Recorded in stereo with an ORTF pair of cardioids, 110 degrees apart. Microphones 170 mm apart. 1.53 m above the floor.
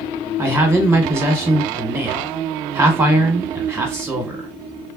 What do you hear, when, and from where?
0.4 s a man speaking: 15° right, 1.2 m